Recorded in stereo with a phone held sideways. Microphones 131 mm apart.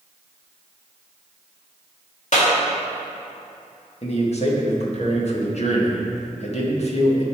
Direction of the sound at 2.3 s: 65° left (ahead or behind).